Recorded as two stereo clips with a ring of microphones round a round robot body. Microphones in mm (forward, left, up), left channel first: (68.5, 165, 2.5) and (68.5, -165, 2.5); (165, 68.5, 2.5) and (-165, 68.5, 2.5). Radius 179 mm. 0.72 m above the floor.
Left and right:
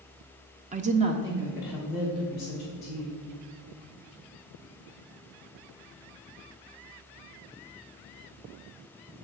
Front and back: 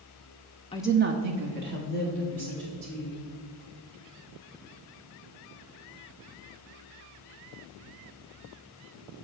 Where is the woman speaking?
50° right, 0.5 m; by 3.1 s straight behind, 3 m.